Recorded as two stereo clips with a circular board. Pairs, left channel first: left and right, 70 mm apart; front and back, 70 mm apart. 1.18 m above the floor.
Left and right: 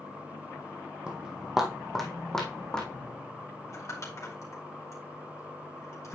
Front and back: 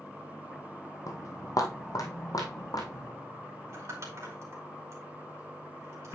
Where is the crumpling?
135° left, 2.5 m.